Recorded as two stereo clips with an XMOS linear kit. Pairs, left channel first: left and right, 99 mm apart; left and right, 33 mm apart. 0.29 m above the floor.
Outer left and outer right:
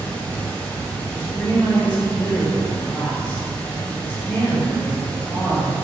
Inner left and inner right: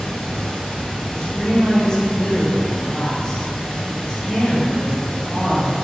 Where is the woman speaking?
15° left (ahead or behind), 1.3 m.